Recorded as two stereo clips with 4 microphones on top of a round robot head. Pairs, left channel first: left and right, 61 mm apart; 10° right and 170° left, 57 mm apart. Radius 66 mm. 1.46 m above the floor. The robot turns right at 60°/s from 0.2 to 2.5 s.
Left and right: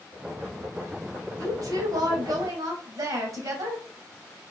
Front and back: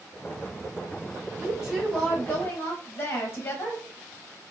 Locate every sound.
1.4 s a woman speaking: 125° right, 0.9 m; by 3.8 s 60° right, 0.9 m